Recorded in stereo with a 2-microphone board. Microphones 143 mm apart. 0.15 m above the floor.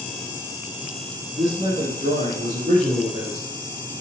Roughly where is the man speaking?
Right.